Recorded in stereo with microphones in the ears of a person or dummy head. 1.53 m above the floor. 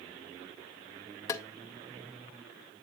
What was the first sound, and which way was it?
Tapping, 15° left (ahead or behind).